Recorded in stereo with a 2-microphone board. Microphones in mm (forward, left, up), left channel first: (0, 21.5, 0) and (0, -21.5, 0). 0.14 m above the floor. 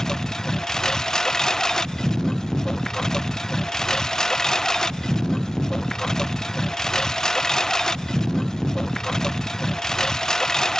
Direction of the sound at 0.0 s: 15° left (ahead or behind).